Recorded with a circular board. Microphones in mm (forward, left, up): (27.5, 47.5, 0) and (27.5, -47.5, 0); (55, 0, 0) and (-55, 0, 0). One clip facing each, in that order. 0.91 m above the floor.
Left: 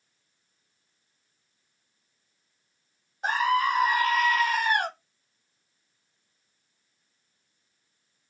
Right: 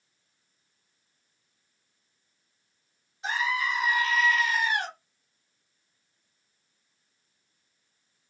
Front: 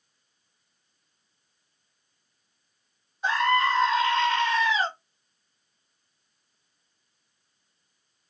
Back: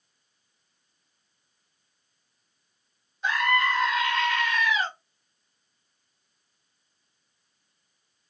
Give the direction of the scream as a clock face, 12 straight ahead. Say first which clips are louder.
Left 6 dB, front 2 dB; 10 o'clock.